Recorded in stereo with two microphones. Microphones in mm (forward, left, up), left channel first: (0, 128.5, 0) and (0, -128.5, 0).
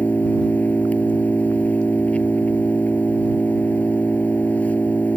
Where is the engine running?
5° left (ahead or behind).